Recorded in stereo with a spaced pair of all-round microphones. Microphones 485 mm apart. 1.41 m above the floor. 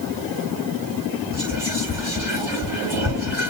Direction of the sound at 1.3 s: 55° left (ahead or behind).